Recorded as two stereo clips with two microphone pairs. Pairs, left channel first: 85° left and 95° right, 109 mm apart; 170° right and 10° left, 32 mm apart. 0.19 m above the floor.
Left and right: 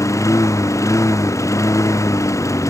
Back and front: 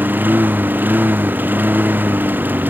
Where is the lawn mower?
20° left.